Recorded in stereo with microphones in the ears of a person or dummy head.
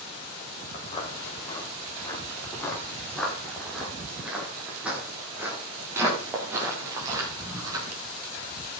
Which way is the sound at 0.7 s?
30° left (ahead or behind).